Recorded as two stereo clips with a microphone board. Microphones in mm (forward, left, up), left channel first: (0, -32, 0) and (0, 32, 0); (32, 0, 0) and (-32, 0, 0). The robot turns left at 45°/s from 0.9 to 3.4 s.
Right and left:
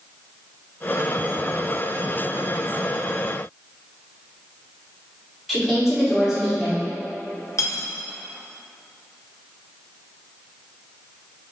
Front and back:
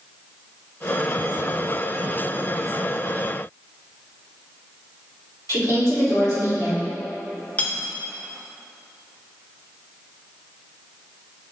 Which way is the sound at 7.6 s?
65° right.